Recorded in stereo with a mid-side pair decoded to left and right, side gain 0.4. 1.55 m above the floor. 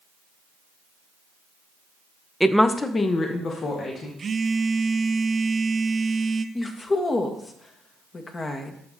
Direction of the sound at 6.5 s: 35° left.